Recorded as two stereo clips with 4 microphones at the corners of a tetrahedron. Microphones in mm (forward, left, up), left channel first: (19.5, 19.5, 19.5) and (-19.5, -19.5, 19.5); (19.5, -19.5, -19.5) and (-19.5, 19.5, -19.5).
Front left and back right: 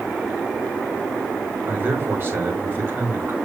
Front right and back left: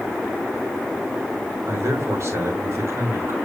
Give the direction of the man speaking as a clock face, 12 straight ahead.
6 o'clock.